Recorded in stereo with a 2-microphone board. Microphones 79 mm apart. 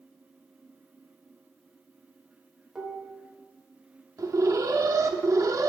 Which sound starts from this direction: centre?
Dishes clattering, at 2.8 s.